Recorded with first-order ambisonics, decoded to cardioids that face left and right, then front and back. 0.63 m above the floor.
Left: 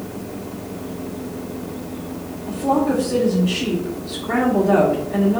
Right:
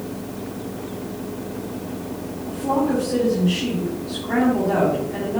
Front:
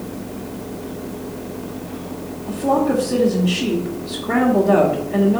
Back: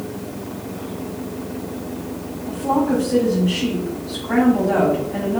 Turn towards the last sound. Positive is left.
turn(degrees=35)